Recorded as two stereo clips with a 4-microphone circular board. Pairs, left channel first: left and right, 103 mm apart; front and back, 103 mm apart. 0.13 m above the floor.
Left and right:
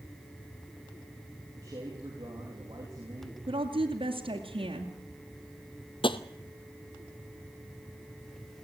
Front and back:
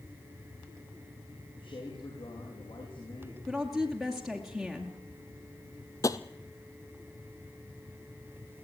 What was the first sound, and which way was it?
A man speaking, 35° right.